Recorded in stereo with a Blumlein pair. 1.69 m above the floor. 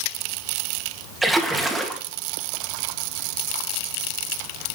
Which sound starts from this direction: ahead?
A splash, at 1.2 s.